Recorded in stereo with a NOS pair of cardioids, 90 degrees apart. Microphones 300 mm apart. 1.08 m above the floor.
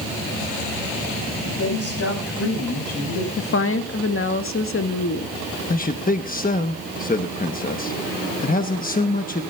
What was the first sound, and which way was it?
A woman speaking, 55° left.